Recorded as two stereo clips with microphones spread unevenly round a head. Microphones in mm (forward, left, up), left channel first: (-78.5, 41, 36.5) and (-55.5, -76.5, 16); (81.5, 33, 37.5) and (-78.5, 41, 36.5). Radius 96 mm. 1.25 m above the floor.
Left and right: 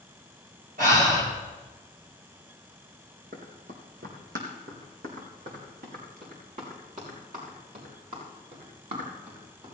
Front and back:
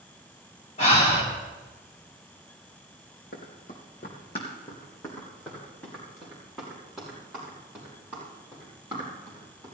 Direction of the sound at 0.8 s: 60° right.